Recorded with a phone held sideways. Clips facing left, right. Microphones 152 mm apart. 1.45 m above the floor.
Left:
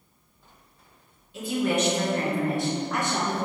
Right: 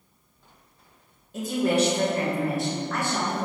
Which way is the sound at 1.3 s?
45° right (ahead or behind).